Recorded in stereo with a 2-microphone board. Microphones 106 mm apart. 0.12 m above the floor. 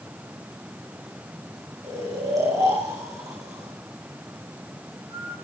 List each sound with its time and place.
1.8 s snoring: 35° right (ahead or behind), 9 m